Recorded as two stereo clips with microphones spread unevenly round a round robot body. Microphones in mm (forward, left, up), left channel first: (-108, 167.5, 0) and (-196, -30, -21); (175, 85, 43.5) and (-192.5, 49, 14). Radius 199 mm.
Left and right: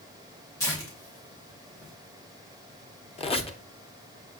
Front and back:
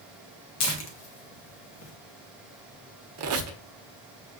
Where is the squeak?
135° left, 0.7 m.